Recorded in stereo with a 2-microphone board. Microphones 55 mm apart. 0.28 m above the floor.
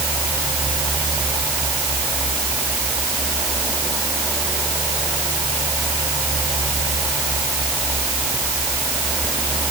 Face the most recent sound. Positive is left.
No sound to turn to.